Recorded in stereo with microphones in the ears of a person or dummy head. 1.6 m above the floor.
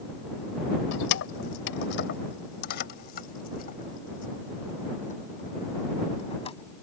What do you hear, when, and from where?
0.9 s keys jangling: 70° left (ahead or behind); by 6.8 s 25° left (ahead or behind)